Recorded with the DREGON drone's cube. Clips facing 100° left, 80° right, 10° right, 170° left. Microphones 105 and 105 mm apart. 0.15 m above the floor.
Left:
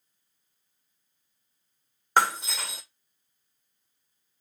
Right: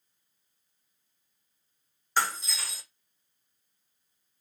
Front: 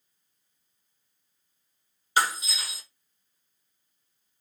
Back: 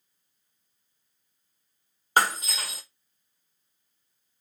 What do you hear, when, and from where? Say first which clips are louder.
2.2 s breaking glass: left 6 dB, back 2 dB; 130° left, 0.6 m